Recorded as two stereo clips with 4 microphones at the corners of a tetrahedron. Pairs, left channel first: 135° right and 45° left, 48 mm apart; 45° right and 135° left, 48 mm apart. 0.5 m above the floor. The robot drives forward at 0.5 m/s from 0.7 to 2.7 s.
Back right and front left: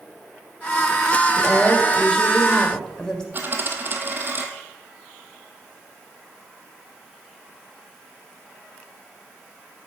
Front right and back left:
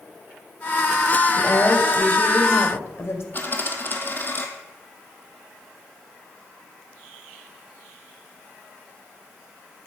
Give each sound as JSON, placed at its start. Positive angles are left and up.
{"t": 1.4, "sound": "a woman speaking", "azimuth_deg": -45, "distance_m": 2.5}
{"t": 3.3, "sound": "a dropped coin", "azimuth_deg": 0, "distance_m": 1.4}